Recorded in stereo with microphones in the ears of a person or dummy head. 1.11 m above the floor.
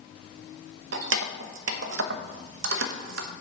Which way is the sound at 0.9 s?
70° right (ahead or behind).